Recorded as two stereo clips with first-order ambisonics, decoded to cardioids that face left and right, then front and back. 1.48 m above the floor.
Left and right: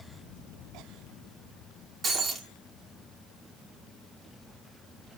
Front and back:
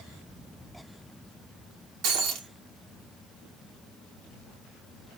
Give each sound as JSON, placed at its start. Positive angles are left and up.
{"t": 2.0, "sound": "breaking glass", "azimuth_deg": -155, "distance_m": 2.5}